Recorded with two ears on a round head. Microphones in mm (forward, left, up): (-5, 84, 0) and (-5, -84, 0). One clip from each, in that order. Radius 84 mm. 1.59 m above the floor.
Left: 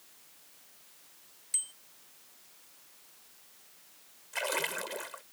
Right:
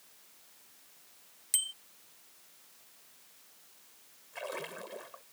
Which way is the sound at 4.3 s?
60° left (ahead or behind).